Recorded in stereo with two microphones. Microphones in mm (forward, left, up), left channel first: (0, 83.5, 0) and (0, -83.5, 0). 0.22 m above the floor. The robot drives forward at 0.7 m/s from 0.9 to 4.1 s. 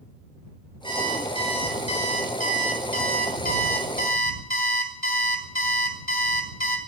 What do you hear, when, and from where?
0.8 s an alarm clock: 30° left (ahead or behind), 2.5 m; by 6.8 s 60° left (ahead or behind), 1.3 m